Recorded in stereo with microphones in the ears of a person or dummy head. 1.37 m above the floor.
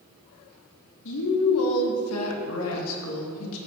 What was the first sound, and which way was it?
A woman speaking, 70° left (ahead or behind).